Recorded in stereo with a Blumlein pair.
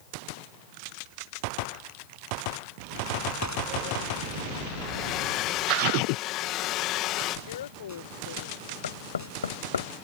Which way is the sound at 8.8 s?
70° left.